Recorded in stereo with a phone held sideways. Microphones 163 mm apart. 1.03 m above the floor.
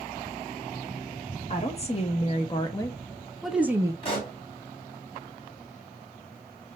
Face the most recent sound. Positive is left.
turn(degrees=35)  # may be behind; listen again after turning